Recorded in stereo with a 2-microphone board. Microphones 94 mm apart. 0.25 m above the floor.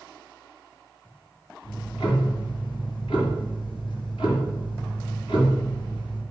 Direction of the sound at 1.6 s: 70° left (ahead or behind).